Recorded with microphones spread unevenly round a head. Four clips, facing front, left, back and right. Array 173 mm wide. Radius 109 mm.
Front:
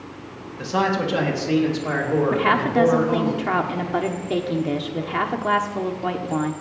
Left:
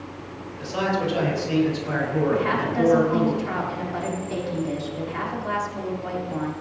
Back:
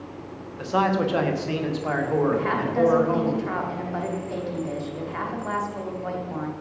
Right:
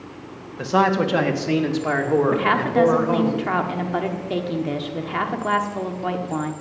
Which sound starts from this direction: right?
A man speaking, at 0.6 s.